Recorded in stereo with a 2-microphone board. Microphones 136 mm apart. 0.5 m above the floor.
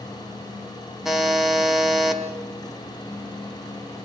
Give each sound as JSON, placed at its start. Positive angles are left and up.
{"t": 1.1, "sound": "a buzzer", "side_deg": -5, "distance_m": 2.5}